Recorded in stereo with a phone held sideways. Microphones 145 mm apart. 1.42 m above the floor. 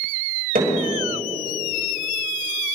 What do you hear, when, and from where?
0.6 s hammering: 85° right, 5.5 m